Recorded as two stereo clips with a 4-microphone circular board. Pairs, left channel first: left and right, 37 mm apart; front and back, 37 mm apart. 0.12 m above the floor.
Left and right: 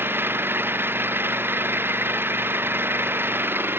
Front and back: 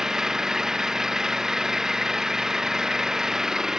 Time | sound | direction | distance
0.0 | an engine running | 105° right | ?